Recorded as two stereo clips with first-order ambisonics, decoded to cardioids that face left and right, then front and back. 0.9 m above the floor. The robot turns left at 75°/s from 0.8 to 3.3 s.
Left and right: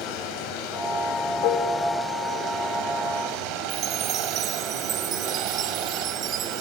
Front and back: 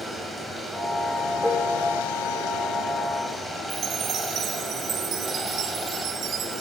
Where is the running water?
90° left, 4 m; by 6.6 s 95° right, 4 m.